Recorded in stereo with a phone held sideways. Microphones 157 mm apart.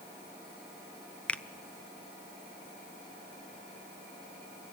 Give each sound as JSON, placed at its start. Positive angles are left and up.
{"t": 1.3, "sound": "a finger snap", "side_deg": 5, "distance_m": 0.6}